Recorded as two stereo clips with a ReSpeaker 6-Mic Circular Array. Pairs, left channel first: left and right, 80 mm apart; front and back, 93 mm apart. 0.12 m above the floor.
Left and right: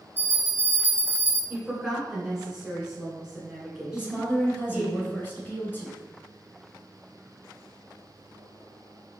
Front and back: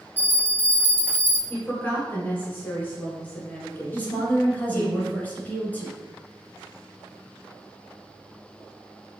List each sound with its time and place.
0.2 s a bell: 50° left, 0.7 m
1.5 s a woman speaking: 25° right, 1.5 m
3.9 s a woman speaking: 55° left, 1.2 m